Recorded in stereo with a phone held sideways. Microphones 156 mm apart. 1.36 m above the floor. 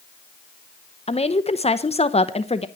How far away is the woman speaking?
About 0.7 m.